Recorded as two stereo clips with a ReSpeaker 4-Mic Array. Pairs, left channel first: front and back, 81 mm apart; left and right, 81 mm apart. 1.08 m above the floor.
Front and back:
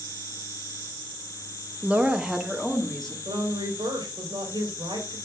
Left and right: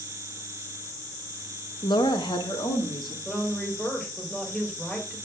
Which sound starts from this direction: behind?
A woman speaking, at 3.2 s.